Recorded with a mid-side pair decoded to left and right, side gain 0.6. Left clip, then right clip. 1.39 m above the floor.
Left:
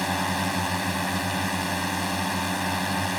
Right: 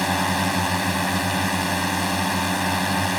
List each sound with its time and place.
0.0 s a drone: 25° right